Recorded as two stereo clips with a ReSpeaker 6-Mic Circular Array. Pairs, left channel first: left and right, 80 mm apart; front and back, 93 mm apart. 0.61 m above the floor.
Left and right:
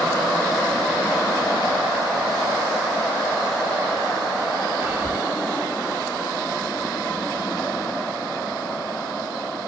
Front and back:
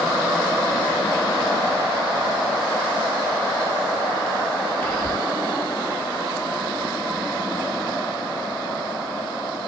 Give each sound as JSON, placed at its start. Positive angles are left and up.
{"t": 4.8, "sound": "whispering", "azimuth_deg": -40, "distance_m": 0.6}